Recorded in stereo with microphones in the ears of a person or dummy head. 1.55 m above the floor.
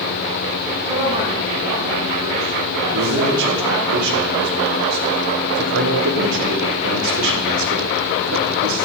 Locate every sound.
0.8 s a man speaking: 40° right (ahead or behind), 9 m; by 3.9 s 10° right (ahead or behind), 7.5 m
2.9 s a man speaking: 75° right (ahead or behind), 4 m